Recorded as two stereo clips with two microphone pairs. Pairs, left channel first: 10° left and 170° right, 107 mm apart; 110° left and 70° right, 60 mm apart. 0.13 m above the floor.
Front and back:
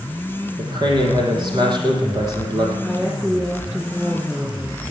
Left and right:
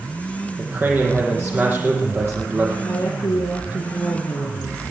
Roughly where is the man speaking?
Behind right.